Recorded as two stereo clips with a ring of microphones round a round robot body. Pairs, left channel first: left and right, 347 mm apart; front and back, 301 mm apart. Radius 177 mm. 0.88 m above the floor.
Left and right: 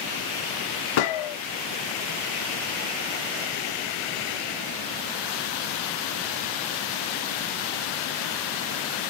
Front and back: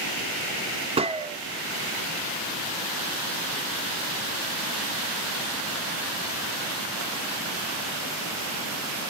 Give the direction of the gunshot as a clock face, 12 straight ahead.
8 o'clock.